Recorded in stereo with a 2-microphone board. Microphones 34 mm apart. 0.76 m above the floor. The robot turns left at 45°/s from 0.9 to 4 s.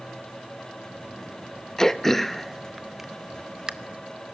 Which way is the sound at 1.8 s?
20° left (ahead or behind).